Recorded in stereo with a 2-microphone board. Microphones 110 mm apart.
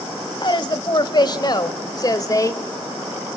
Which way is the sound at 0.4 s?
45° left (ahead or behind).